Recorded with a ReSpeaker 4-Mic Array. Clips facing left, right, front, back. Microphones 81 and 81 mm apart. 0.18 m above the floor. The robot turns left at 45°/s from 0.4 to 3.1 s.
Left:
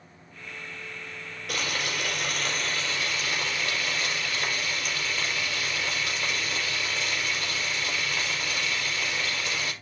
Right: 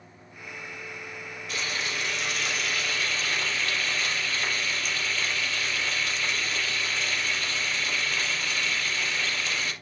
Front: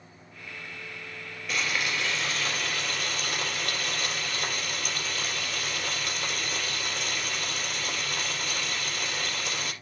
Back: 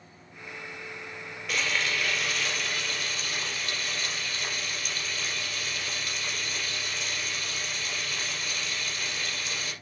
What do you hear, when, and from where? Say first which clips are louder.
1.5 s frying: left 2 dB, even; 90° left, 4.5 m; by 9.7 s 15° left, 4.5 m